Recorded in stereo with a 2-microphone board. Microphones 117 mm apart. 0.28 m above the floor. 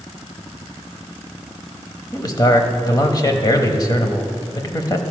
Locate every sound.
2.1 s a man speaking: 30° left (ahead or behind), 1.0 m